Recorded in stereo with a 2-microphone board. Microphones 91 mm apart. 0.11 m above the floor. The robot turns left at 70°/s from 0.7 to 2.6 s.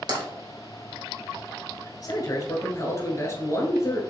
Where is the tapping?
45° right (ahead or behind), 2 m.